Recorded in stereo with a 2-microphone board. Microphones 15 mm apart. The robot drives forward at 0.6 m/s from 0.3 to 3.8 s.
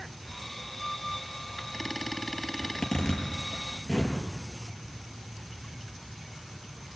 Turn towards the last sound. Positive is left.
turn(degrees=65)  # may be behind; listen again after turning